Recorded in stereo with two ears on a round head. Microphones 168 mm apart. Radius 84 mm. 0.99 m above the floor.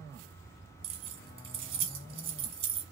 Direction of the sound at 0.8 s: 30° right (ahead or behind).